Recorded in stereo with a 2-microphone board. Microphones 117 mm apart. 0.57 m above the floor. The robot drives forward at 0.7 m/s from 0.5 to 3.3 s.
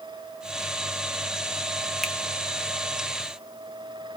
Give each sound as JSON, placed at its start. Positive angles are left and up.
{"t": 2.0, "sound": "a finger snap", "side_deg": 0, "distance_m": 0.9}